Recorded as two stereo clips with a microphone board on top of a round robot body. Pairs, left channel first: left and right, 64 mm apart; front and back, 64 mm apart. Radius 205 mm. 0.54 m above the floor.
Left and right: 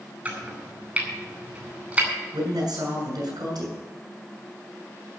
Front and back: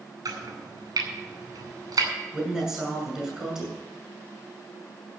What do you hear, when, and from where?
0.2 s chopping: 160° right, 5 m
2.3 s a man speaking: 100° right, 8.5 m